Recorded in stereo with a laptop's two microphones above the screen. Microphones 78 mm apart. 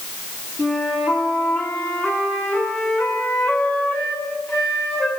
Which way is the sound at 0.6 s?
30° left (ahead or behind).